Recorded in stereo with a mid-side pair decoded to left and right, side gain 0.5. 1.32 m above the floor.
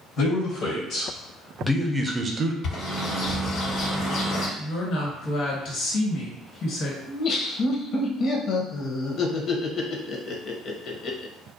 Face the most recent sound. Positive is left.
turn(degrees=55)